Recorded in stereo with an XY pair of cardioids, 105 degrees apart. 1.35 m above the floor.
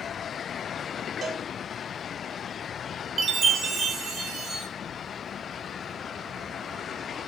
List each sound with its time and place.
1.2 s a cowbell: 45° right, 6.5 m
3.2 s a chime: 45° right, 3.5 m